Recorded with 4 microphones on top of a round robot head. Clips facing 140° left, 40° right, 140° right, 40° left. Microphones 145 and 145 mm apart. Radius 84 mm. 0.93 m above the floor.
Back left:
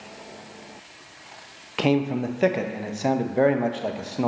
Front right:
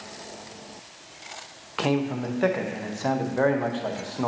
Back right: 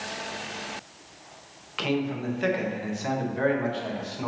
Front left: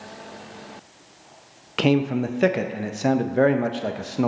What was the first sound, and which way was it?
A man speaking, 70° left.